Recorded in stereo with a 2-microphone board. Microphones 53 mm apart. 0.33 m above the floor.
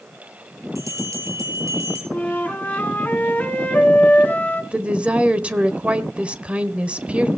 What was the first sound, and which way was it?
A bell, 75° right (ahead or behind).